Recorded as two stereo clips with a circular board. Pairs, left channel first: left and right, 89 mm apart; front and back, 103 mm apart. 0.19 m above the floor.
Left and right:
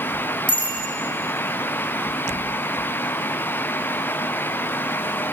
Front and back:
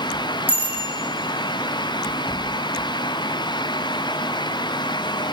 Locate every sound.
0.5 s a bicycle bell: 70° left, 6.5 m